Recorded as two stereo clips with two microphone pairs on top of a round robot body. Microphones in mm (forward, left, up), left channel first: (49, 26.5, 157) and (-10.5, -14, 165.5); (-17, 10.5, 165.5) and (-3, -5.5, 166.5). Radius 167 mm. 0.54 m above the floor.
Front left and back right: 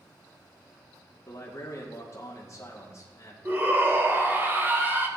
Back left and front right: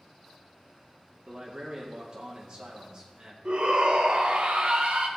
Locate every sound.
1.3 s a man speaking: straight ahead, 2 m
3.5 s a shout: 85° right, 2 m